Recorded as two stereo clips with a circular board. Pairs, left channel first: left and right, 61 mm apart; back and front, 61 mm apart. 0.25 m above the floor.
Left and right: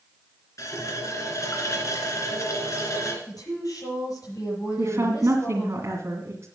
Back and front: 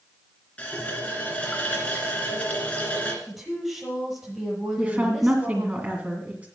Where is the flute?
I don't hear a flute.